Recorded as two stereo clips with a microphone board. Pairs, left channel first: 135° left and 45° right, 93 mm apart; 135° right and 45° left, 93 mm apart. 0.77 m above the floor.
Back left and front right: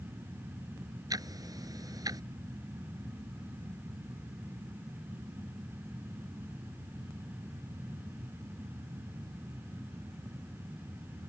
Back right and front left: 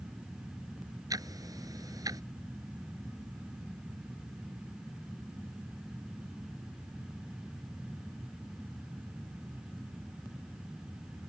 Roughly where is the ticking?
Ahead.